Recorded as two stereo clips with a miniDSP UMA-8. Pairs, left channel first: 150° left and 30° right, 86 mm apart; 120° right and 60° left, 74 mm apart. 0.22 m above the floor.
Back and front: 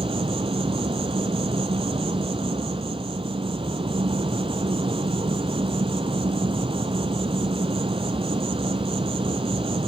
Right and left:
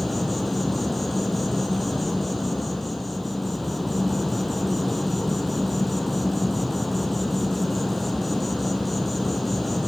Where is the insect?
30° right, 0.9 m.